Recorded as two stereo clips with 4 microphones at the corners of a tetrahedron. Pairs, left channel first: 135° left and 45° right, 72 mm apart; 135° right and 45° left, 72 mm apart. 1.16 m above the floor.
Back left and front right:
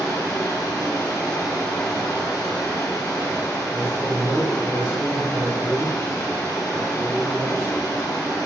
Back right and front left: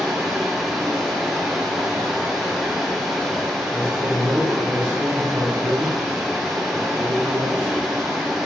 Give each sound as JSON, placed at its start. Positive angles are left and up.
{"t": 0.0, "sound": "running water", "azimuth_deg": 130, "distance_m": 1.2}
{"t": 3.7, "sound": "a man speaking", "azimuth_deg": -15, "distance_m": 1.0}